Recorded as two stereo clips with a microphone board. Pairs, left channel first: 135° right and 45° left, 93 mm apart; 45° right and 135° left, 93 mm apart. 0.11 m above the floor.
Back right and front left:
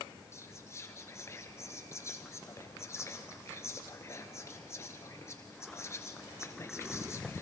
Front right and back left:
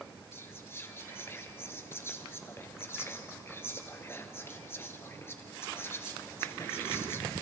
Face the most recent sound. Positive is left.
turn(degrees=-95)